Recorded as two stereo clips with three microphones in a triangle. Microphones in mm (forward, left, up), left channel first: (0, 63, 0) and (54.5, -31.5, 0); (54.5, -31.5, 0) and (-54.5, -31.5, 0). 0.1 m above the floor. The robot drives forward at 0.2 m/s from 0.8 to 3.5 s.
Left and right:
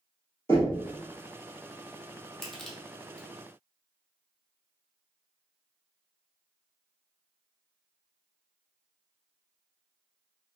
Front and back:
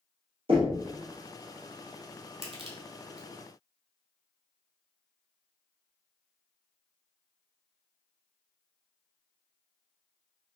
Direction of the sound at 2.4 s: 155° right.